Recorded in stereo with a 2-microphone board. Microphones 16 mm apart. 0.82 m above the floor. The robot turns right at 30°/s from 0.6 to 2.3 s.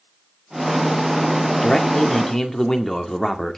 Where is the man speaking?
55° left (ahead or behind), 1.9 m; by 3.6 s 35° left (ahead or behind), 1.9 m.